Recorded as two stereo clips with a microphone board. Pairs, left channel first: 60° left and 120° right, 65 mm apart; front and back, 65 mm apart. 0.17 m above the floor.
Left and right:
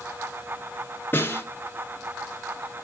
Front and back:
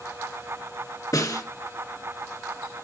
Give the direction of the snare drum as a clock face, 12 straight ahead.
12 o'clock.